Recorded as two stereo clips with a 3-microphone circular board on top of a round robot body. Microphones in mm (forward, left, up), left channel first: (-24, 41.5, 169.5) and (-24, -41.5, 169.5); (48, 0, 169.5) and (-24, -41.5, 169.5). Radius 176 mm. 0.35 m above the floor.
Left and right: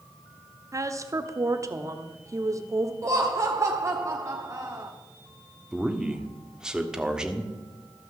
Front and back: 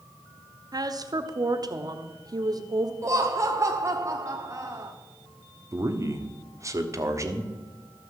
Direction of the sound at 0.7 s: 130° right.